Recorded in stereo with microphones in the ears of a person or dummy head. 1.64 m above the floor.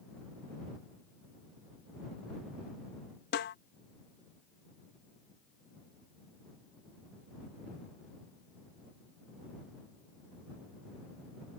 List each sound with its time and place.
3.3 s a snare drum: 60° left (ahead or behind)